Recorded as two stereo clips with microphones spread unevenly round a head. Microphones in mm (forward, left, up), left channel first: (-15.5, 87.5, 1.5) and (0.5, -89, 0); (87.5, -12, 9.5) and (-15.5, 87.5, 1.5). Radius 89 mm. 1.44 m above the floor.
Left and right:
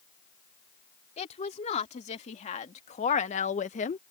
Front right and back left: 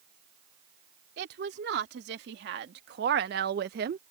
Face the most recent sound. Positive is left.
turn(degrees=140)